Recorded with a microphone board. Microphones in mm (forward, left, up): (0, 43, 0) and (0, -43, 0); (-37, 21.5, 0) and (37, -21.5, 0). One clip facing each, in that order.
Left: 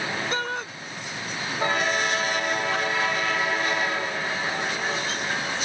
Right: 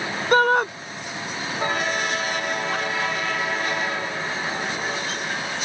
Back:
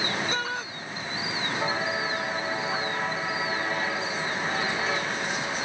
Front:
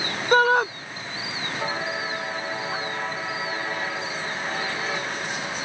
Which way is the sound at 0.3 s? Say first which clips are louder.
Right 12 dB, front 13 dB; 60° right.